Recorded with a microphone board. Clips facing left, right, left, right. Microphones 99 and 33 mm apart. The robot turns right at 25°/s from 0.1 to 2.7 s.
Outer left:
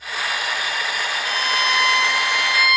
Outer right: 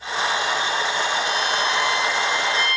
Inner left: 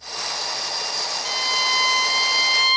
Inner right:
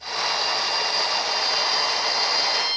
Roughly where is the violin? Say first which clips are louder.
Even, inner left 2 dB; ahead left.